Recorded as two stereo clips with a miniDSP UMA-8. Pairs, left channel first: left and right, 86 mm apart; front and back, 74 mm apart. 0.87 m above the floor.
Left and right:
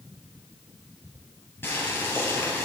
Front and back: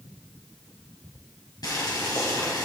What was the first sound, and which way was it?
Boiling, 25° left.